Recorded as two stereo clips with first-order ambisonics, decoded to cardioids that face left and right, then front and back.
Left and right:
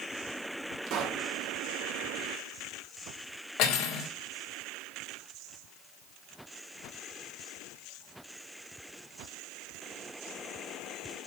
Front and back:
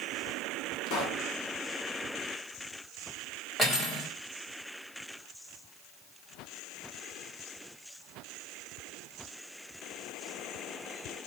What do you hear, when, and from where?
0.9 s a pop: 40° right, 2.5 m
3.6 s cutlery clinking: 85° left, 1.9 m